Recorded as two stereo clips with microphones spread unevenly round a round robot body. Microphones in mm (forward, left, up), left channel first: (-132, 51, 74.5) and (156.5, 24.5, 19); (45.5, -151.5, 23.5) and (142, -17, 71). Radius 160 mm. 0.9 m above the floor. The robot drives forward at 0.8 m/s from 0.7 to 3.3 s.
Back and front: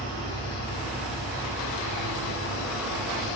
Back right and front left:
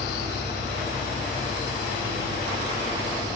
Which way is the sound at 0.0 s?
110° right.